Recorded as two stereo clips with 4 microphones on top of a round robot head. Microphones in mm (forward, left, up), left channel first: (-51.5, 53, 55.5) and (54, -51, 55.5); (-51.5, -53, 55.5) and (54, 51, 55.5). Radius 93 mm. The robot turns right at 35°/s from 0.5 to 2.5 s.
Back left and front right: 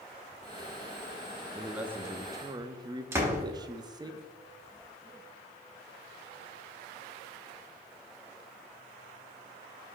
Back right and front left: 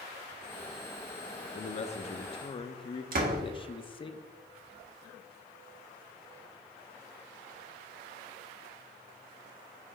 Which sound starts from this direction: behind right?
A man speaking, at 1.6 s.